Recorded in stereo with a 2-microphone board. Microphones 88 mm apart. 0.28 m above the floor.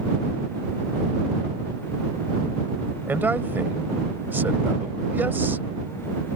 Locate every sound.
3.1 s a man speaking: 25° right (ahead or behind)